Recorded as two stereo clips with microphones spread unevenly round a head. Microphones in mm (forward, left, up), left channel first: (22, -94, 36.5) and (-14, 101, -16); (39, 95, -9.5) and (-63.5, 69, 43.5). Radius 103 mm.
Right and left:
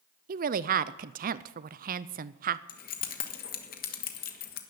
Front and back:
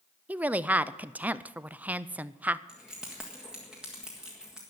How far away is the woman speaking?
About 0.5 m.